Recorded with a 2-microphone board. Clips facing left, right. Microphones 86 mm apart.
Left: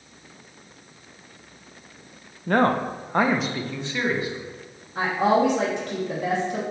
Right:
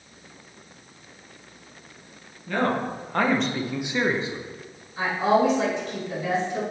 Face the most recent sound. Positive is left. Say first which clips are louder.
# left 1 dB
turn(degrees=65)  # may be behind; listen again after turning